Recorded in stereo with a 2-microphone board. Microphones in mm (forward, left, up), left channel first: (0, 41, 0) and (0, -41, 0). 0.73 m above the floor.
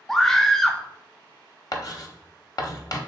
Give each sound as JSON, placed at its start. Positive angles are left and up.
{"t": 0.1, "sound": "a scream", "side_deg": 10, "distance_m": 0.7}
{"t": 1.7, "sound": "writing", "side_deg": 50, "distance_m": 0.8}